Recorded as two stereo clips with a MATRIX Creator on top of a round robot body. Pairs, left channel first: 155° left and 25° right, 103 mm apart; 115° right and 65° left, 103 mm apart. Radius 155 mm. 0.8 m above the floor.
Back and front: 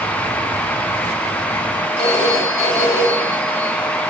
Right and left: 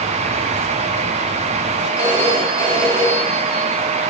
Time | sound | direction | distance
2.0 | a phone ringing | 175° right | 6.5 m